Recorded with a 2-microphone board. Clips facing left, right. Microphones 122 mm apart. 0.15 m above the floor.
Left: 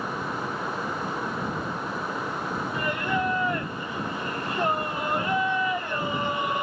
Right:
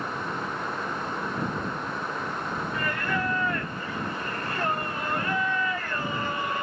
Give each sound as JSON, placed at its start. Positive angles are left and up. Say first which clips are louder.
{"t": 2.7, "sound": "singing", "louder": "left 3 dB", "side_deg": 20}